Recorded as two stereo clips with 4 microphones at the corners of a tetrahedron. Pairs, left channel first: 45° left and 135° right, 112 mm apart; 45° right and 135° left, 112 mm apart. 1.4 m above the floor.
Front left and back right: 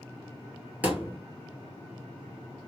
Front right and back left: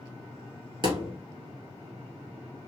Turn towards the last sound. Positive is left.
turn(degrees=155)